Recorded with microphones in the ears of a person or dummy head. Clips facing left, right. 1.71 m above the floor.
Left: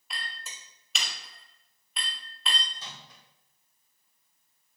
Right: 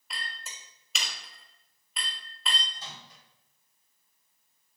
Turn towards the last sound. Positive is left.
turn(degrees=60)  # may be behind; listen again after turning